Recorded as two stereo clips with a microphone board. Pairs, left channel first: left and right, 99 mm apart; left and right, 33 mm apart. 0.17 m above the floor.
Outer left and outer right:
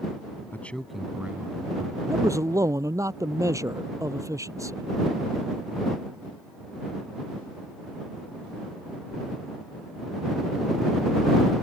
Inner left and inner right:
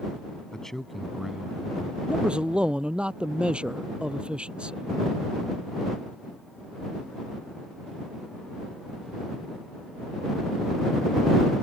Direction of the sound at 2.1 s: 35° right (ahead or behind).